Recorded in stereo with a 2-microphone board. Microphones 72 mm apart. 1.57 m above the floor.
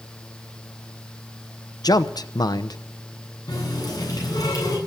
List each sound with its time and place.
1.8 s a man speaking: 70° left (ahead or behind), 0.8 m
3.5 s a running tap: 65° left (ahead or behind), 9.5 m